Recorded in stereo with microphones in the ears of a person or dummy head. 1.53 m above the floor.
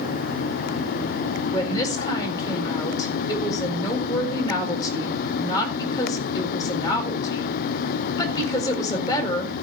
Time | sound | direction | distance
1.5 | a woman speaking | 25° left (ahead or behind) | 4 m